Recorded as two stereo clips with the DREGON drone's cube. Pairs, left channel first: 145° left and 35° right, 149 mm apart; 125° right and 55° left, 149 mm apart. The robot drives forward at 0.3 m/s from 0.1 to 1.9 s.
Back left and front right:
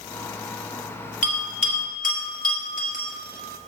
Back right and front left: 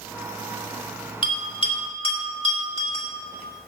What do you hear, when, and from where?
1.2 s a bell: straight behind, 2 m